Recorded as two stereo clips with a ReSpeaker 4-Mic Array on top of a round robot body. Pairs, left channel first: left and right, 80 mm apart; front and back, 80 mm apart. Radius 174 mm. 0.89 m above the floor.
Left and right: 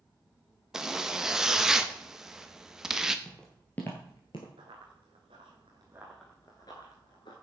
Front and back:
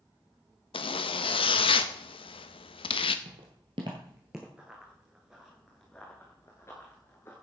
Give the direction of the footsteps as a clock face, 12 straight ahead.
6 o'clock.